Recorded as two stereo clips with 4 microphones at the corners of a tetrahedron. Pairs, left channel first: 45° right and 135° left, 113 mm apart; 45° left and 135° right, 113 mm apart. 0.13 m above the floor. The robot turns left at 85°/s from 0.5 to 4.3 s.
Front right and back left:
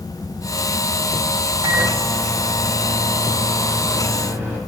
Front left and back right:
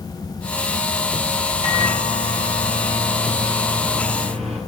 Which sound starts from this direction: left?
A microwave, at 1.6 s.